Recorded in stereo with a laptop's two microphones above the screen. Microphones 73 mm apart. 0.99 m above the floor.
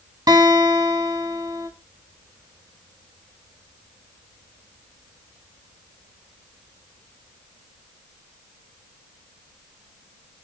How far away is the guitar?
About 1.7 m.